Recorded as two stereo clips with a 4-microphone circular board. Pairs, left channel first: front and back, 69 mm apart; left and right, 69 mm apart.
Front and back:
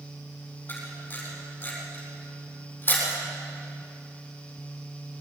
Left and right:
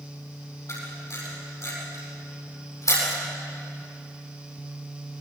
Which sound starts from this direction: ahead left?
A camera shutter, at 0.7 s.